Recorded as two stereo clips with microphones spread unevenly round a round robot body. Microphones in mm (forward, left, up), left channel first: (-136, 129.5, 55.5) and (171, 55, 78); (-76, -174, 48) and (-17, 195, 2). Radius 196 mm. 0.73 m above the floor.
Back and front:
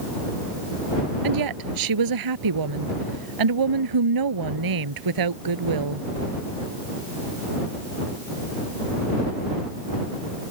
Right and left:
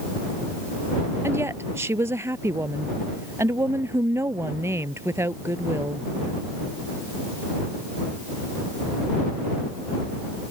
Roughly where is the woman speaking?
Ahead.